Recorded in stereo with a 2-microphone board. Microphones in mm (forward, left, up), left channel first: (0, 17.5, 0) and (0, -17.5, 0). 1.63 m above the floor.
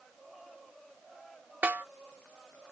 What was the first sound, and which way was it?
A snare drum, 60° right (ahead or behind).